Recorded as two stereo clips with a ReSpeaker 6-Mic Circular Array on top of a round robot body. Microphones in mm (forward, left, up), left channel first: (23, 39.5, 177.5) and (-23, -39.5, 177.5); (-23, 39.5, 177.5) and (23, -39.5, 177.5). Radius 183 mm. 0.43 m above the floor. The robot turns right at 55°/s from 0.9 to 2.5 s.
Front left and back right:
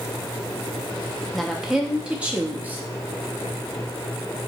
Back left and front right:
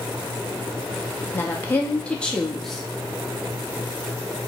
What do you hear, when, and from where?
1.3 s a woman speaking: 135° left, 0.7 m; by 2.8 s 160° right, 0.7 m